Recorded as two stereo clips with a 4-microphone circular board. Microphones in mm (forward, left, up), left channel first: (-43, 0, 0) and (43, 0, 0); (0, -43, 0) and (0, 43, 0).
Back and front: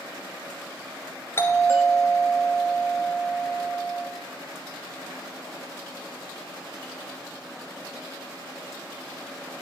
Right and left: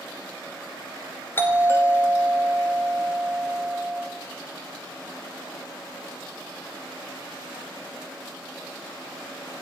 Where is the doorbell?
140° right, 1.9 m.